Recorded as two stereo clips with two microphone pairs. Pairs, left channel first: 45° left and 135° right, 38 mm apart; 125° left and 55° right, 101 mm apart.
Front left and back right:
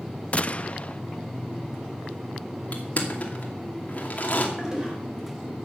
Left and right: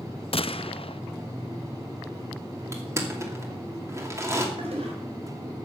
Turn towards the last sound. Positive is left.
turn(degrees=-60)